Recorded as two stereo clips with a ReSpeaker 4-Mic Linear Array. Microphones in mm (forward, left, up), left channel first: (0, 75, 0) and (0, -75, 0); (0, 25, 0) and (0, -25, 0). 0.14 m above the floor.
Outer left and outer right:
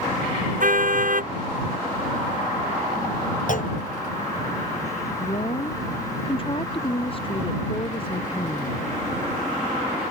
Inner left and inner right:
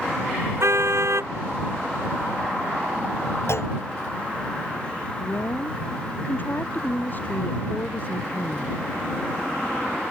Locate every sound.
0.6 s a car horn: 65° right (ahead or behind)
3.5 s a clunk: 60° left (ahead or behind)
5.2 s a woman speaking: 35° left (ahead or behind)